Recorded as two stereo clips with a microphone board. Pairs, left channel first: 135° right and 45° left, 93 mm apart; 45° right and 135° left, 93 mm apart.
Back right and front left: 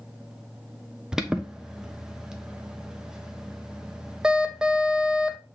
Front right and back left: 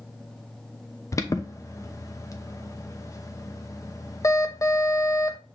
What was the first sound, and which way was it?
An alarm, 35° right.